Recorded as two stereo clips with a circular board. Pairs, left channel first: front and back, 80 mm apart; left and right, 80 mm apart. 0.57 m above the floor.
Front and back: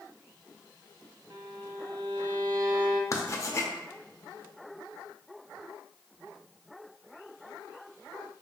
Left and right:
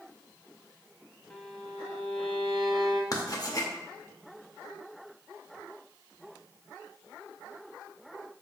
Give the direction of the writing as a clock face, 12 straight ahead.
10 o'clock.